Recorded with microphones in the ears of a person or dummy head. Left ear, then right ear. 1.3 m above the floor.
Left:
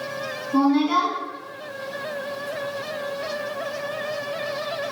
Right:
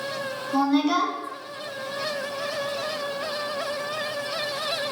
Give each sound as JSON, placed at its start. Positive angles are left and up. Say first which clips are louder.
{"t": 0.5, "sound": "a woman speaking", "louder": "left 2 dB", "side_deg": -65, "distance_m": 0.7}